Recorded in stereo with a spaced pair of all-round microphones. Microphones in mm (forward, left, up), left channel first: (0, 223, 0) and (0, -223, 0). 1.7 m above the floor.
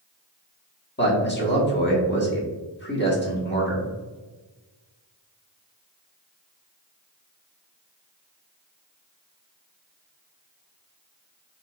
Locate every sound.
1.0 s a man speaking: 25° left (ahead or behind), 1.5 m